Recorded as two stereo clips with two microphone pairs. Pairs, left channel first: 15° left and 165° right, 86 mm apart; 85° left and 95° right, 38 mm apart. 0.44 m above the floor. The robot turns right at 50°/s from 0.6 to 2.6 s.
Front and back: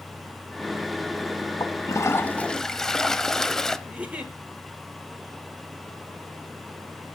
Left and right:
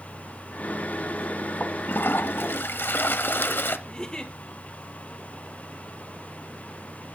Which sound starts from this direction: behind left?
A giggle, at 3.9 s.